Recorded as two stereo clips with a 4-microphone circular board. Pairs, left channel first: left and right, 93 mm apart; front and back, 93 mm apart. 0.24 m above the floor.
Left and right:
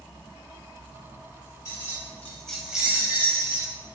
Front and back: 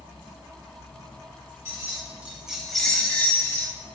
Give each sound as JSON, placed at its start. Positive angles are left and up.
{"t": 1.6, "sound": "keys jangling", "azimuth_deg": 130, "distance_m": 1.0}